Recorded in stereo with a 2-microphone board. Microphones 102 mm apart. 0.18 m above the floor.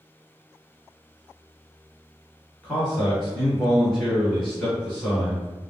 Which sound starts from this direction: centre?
A man speaking, at 2.6 s.